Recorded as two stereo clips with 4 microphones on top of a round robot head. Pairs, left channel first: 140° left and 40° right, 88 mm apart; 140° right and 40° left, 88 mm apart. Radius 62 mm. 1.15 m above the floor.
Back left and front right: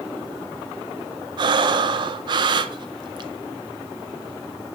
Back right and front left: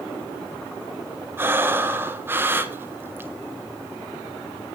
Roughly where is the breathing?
Ahead right.